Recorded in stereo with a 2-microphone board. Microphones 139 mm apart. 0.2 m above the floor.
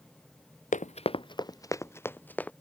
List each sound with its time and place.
0.7 s running footsteps: 65° left (ahead or behind); by 2.5 s 10° left (ahead or behind)